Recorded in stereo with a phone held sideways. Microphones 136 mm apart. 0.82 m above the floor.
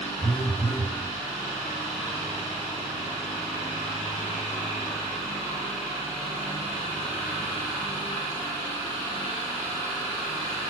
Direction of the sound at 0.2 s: 5° right (ahead or behind).